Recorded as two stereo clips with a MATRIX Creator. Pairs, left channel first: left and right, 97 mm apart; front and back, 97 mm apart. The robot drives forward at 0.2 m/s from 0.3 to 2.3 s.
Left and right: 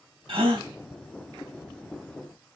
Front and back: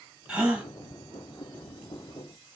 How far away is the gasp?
About 1.4 m.